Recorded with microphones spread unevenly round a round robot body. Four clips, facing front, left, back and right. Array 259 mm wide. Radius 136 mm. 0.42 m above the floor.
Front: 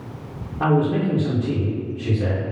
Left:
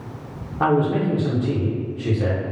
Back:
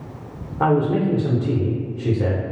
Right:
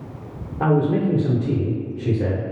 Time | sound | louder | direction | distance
0.6 | a man speaking | even, back 1 dB | 165° right | 0.9 m